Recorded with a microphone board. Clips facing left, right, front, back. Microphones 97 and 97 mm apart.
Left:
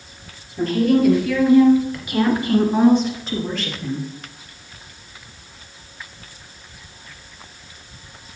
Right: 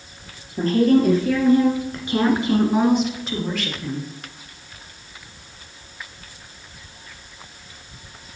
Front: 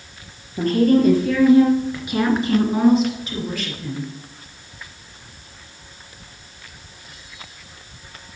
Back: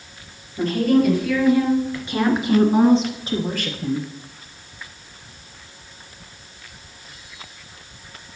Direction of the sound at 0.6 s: 40° right.